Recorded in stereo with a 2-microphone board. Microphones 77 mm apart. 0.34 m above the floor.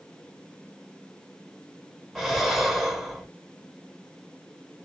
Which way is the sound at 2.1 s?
Centre (ahead or behind).